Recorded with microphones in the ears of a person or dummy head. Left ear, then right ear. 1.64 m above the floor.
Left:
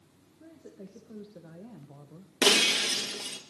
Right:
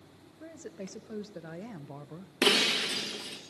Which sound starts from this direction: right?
A woman speaking, at 0.4 s.